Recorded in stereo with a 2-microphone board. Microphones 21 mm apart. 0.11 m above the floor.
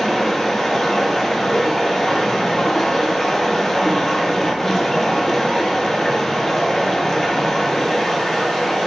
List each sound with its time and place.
0.0 s running water: 15° left (ahead or behind), 0.9 m